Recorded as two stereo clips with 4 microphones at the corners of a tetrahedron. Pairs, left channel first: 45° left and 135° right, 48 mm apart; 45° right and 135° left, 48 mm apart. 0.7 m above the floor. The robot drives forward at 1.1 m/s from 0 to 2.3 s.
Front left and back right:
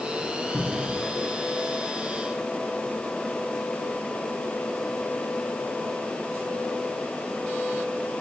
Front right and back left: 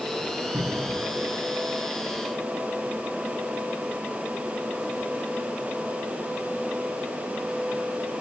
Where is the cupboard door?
120° left, 1.1 m; by 1.0 s 135° left, 1.4 m.